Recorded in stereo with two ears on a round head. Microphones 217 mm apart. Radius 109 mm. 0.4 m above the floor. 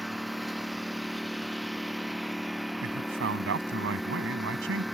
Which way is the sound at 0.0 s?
Centre (ahead or behind).